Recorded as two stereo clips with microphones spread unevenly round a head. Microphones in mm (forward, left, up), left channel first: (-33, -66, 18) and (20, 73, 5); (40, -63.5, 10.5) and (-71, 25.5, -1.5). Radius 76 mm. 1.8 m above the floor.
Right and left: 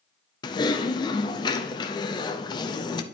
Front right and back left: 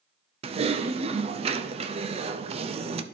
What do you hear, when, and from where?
0.4 s typing on a keyboard: 170° right, 0.7 m